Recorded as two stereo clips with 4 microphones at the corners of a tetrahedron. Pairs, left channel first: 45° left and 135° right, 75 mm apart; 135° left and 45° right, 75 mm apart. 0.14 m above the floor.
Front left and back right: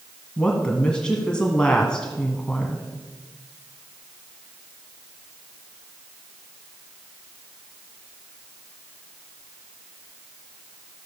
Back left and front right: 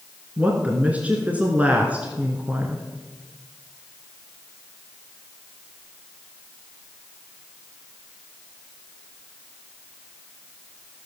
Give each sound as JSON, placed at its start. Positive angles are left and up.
{"t": 0.4, "sound": "a woman speaking", "azimuth_deg": -15, "distance_m": 1.6}